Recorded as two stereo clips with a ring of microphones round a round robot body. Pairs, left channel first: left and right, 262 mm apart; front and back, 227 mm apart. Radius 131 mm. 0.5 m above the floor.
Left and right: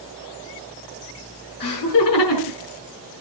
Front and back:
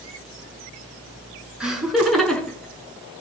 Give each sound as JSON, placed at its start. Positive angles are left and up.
{"t": 1.6, "sound": "laughter", "azimuth_deg": 95, "distance_m": 7.0}